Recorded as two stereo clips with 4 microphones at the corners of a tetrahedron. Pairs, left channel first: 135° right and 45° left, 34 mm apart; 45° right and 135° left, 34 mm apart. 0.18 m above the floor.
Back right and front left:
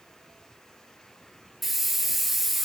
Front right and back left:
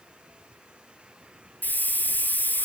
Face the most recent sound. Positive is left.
turn(degrees=-40)